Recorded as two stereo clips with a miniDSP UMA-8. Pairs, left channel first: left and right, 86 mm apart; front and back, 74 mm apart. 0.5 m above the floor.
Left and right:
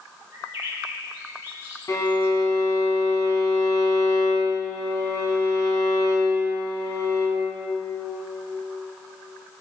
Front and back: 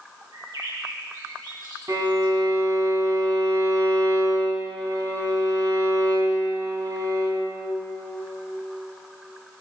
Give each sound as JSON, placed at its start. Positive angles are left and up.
{"t": 0.3, "sound": "a bird", "azimuth_deg": -160, "distance_m": 10.0}
{"t": 1.9, "sound": "a violin", "azimuth_deg": 140, "distance_m": 4.5}